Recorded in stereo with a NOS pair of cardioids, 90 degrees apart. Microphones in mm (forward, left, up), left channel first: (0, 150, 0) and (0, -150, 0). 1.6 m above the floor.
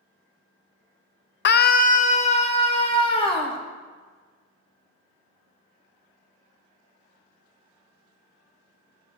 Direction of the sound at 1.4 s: 40° left.